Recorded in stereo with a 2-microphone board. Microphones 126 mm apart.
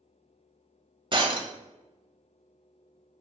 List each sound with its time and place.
1.1 s breaking glass: 40° right (ahead or behind), 0.8 m